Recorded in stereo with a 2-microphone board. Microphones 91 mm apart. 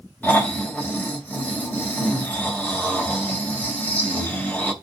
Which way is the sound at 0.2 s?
20° left (ahead or behind).